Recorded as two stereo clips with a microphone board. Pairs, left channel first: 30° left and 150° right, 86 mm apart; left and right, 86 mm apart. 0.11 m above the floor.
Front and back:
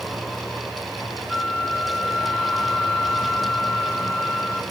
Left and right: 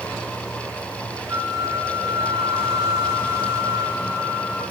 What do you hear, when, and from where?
1.3 s a flute: 70° right, 3 m